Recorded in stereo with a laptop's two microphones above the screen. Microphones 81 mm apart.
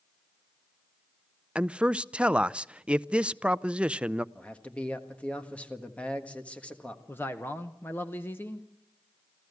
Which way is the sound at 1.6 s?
15° right (ahead or behind).